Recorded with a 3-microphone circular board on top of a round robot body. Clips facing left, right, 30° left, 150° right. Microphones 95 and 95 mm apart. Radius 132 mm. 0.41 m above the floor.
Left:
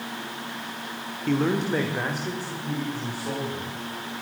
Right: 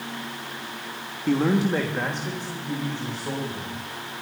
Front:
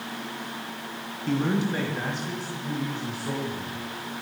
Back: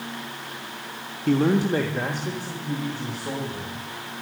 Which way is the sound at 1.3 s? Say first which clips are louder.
Right 2 dB, back 5 dB; 170° right.